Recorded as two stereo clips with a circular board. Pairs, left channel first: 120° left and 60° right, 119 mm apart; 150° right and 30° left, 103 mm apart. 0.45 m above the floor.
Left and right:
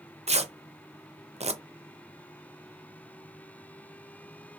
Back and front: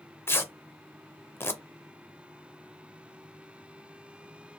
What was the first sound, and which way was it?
Tearing paper, 85° right.